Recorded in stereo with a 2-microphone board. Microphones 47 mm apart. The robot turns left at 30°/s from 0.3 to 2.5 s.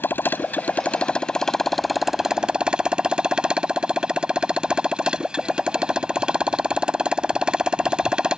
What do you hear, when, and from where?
0.0 s a motorcycle: 45° left; by 8.4 s 20° right